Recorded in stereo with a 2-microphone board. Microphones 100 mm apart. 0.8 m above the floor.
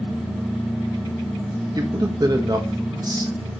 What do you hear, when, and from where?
1.8 s a man speaking: 40° right (ahead or behind), 1.3 m